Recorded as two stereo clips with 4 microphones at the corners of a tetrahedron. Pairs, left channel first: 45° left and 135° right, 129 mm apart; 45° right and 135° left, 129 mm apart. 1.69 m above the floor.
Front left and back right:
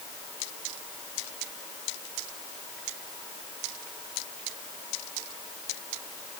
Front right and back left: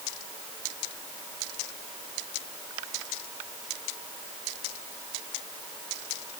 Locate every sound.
Only background noise.